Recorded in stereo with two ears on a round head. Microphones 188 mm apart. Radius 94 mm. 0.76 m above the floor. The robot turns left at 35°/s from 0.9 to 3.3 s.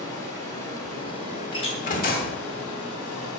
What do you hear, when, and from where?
0.0 s running water: 160° left, 2.5 m; by 3.4 s 75° left, 2.5 m
1.5 s a door slam: 155° left, 1.2 m; by 2.4 s 125° left, 1.2 m